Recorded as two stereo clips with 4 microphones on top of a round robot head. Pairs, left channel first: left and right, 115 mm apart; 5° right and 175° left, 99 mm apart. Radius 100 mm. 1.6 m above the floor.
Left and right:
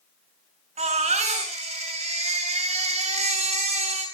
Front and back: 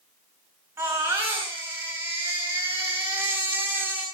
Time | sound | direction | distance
0.8 | a baby crying | 110° right | 6 m